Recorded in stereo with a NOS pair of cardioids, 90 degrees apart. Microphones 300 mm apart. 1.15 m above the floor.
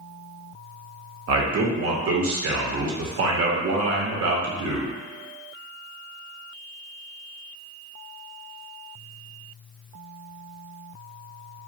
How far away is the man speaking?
About 0.9 m.